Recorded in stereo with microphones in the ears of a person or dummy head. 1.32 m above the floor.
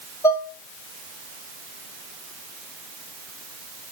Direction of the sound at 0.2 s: 10° left (ahead or behind).